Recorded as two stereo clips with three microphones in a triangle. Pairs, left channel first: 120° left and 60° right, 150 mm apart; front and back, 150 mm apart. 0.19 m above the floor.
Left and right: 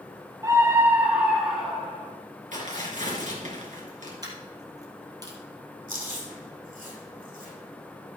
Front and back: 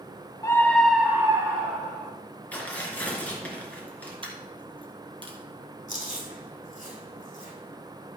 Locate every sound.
0.4 s a scream: 30° right, 1.7 m; by 2.1 s 155° right, 2.5 m
2.5 s tearing paper: 80° right, 3.5 m
4.2 s a dropped coin: 125° right, 3 m
5.9 s chewing: 35° right, 6 m